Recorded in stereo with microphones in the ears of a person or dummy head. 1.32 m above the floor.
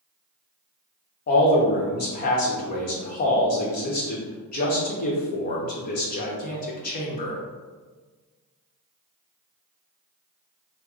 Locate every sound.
1.3 s a man speaking: 45° left (ahead or behind), 0.9 m